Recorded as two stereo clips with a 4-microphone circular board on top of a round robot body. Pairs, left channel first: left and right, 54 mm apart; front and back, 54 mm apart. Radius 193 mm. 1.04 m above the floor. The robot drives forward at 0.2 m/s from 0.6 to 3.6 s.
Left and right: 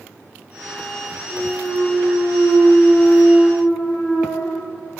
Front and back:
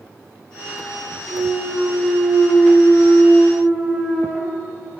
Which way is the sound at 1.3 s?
125° left.